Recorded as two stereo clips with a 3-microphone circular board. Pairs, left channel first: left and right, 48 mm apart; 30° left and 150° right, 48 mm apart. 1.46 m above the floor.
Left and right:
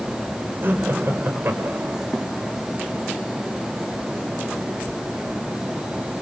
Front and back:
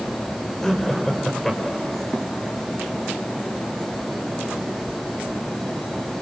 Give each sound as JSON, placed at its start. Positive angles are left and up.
{"t": 0.6, "sound": "laughter", "azimuth_deg": -55, "distance_m": 5.0}